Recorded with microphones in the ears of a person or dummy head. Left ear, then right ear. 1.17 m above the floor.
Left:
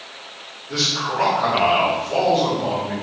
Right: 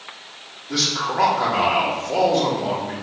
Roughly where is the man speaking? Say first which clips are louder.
Even; right.